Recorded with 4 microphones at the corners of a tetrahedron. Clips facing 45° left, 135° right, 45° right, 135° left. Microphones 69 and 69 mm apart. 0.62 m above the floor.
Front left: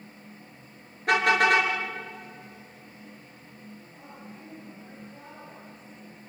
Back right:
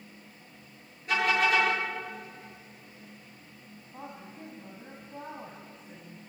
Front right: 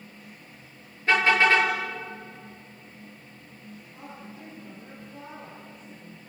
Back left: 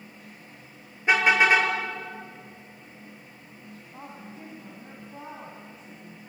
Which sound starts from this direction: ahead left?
A car horn, at 1.1 s.